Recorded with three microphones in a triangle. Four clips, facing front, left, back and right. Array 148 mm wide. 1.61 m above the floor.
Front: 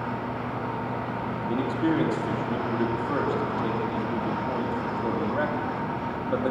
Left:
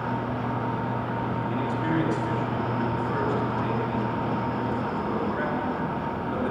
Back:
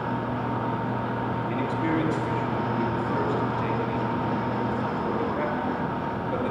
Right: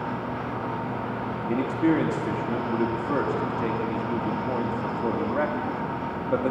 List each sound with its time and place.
1.5 s a man speaking: 70° right, 3 m